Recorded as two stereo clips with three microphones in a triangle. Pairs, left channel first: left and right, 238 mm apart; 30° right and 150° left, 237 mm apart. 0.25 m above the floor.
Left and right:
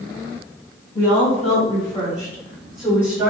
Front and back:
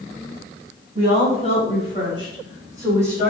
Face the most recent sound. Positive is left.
turn(degrees=-140)